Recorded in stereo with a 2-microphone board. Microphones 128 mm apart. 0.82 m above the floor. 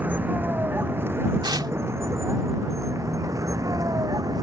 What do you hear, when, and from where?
0.0 s a vehicle: 15° right (ahead or behind); by 4.4 s 30° right (ahead or behind)
1.4 s tearing paper: 35° right (ahead or behind)